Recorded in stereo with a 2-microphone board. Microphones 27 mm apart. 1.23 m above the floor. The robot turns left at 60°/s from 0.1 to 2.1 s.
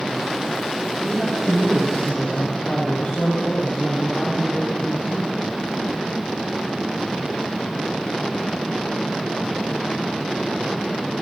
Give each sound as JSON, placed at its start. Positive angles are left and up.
{"t": 1.0, "sound": "a man speaking", "azimuth_deg": -175, "distance_m": 7.5}